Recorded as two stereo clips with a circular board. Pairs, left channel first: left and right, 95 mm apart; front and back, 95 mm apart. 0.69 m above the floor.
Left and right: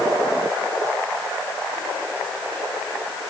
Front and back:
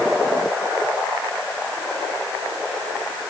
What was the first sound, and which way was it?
Only background noise.